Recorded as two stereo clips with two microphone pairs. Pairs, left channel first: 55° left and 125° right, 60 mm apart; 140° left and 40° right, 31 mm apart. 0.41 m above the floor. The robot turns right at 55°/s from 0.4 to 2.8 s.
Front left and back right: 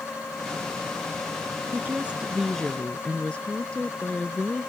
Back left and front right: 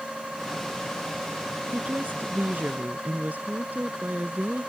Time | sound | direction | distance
1.7 | a woman speaking | 75° right | ?